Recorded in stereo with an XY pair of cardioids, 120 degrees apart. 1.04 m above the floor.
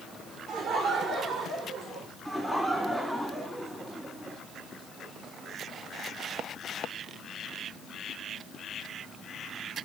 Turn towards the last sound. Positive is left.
turn(degrees=-10)